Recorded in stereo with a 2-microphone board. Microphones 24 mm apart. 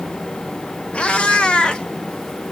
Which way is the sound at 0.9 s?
60° left (ahead or behind).